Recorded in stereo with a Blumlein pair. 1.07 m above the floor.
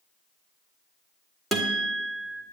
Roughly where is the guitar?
Ahead.